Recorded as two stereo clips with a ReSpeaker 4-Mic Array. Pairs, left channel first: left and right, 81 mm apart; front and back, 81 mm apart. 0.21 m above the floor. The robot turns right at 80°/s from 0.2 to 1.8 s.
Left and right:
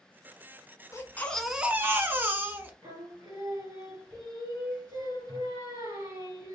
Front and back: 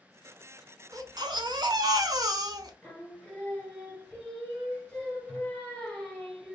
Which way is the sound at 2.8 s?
75° right.